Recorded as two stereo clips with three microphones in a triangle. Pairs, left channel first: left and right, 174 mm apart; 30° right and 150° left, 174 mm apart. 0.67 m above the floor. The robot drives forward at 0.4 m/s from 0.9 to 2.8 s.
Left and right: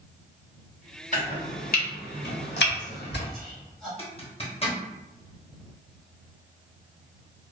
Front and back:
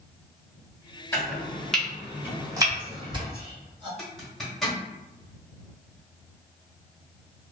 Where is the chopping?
45° left, 1.0 m; by 3.2 s 90° left, 0.7 m.